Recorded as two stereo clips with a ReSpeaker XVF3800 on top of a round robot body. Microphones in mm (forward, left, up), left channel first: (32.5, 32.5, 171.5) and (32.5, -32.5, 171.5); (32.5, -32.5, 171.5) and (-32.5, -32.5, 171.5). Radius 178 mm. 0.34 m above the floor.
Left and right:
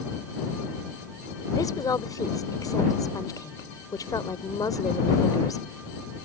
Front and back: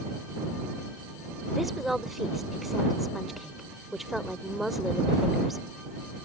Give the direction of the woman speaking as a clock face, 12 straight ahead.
9 o'clock.